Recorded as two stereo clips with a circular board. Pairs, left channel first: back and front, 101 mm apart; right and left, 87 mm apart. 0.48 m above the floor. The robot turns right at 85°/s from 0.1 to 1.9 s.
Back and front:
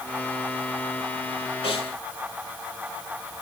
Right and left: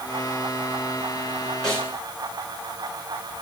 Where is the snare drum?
Straight behind, 5.5 m; by 2.0 s 155° right, 5.5 m.